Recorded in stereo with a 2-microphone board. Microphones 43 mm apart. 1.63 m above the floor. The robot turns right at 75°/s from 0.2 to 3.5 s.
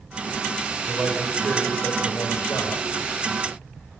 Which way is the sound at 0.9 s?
25° right.